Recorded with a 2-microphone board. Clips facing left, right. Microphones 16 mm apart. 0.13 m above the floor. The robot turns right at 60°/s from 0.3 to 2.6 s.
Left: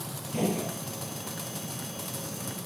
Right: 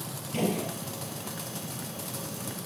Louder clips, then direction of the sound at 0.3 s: Even; 55° right (ahead or behind).